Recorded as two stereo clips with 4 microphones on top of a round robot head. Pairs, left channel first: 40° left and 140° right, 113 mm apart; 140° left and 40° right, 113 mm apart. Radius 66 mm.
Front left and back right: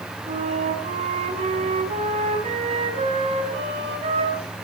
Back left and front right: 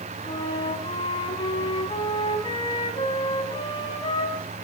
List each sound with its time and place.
0.2 s a flute: 170° right, 4.5 m